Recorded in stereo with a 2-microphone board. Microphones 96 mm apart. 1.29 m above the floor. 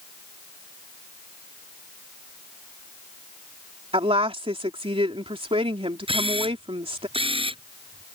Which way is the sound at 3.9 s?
75° right (ahead or behind).